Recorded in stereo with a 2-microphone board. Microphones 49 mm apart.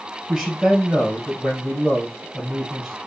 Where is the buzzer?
No buzzer in this recording.